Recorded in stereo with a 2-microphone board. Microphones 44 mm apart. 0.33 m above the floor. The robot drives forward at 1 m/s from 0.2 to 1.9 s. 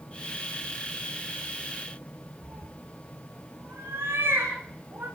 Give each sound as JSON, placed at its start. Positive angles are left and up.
{"t": 2.4, "sound": "a cat meowing", "side_deg": -60, "distance_m": 8.5}